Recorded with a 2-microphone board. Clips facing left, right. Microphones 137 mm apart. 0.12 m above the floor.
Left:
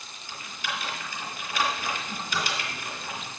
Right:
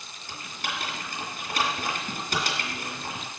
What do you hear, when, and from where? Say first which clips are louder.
0.3 s typing on a keyboard: even; 60° right (ahead or behind), 3 m